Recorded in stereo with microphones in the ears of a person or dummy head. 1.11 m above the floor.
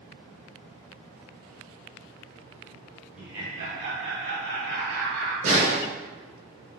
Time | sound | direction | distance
3.1 | laughter | 5° right (ahead or behind) | 1.1 m
5.4 | a snare drum | 45° right (ahead or behind) | 1.4 m